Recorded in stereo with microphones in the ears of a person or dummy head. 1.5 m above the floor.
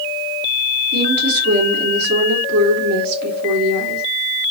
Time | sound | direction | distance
0.9 | a woman speaking | 55° right (ahead or behind) | 3 m